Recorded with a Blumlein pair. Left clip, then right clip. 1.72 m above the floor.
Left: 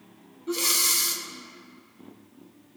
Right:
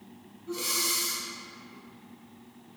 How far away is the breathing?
About 0.8 m.